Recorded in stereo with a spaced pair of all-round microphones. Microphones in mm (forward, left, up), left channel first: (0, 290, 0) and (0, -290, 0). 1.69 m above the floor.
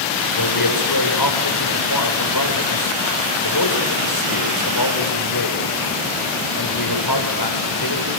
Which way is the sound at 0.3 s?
35° left (ahead or behind).